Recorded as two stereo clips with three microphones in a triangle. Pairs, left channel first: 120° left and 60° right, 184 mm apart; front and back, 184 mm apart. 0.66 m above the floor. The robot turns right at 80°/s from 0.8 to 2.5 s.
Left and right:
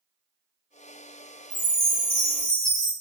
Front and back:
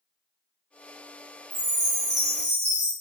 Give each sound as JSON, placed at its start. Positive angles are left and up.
{"t": 1.5, "sound": "a chime", "azimuth_deg": -55, "distance_m": 1.5}